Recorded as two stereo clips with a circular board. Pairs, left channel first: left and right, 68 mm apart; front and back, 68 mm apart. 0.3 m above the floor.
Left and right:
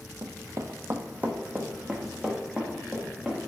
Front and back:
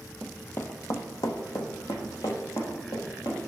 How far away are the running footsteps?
About 0.5 m.